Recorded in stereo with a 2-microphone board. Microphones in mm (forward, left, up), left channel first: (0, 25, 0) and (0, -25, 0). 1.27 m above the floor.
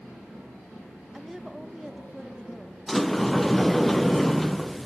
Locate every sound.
1.1 s a woman speaking: 5° right (ahead or behind), 0.9 m
2.9 s a sliding door: centre (ahead or behind), 0.6 m